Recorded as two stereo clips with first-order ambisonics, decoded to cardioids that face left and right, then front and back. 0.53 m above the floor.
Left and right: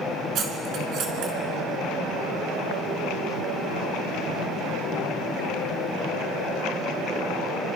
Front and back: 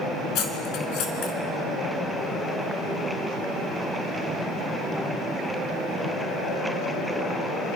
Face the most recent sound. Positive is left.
turn(degrees=-40)